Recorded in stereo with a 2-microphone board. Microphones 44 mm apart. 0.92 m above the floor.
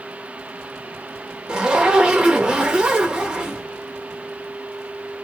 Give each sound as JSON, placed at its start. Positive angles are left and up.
{"t": 1.5, "sound": "a zipper", "side_deg": -20, "distance_m": 0.7}